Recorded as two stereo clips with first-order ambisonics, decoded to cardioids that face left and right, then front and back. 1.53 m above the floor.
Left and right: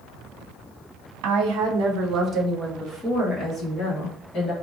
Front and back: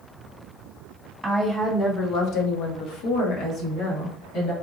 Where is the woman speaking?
95° right, 1.1 m; by 4.5 s 35° left, 2 m.